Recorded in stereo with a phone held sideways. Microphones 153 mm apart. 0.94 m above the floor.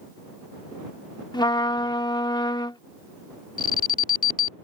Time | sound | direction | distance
1.3 | a trumpet | 25° left (ahead or behind) | ?
3.6 | an alarm | 65° left (ahead or behind) | ?